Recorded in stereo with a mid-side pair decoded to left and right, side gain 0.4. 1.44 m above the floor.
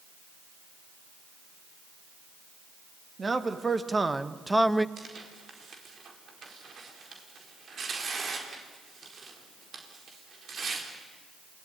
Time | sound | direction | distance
3.2 | a man speaking | 30° right | 2.5 m
5.0 | tearing paper | 55° right | 4.5 m